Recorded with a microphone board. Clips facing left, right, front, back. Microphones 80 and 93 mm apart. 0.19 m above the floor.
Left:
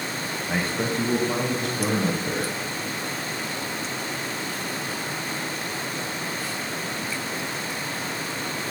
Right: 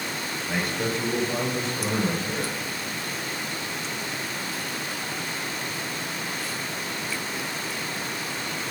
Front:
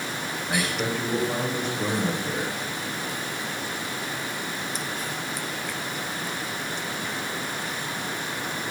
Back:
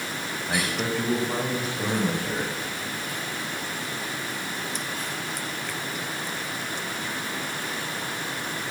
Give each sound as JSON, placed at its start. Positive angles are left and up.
{"t": 0.5, "sound": "a man speaking", "azimuth_deg": 120, "distance_m": 1.0}